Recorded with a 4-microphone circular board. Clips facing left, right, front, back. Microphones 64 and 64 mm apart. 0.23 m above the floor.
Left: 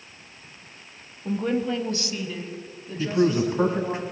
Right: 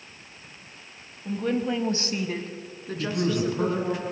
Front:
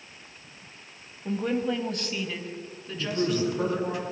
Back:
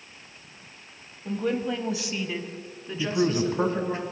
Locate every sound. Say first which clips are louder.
1.2 s a woman speaking: left 1 dB, even; 70° left, 1.0 m; by 4.0 s 105° right, 3.5 m
3.0 s a man speaking: left 4 dB, back 2 dB; 140° left, 1.7 m